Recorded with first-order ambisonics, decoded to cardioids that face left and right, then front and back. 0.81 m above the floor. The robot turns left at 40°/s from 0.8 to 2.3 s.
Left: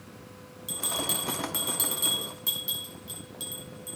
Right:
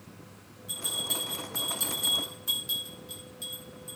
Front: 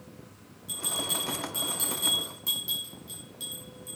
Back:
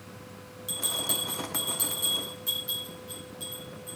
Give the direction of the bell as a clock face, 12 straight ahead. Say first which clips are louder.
Left 1 dB, back 1 dB; 8 o'clock.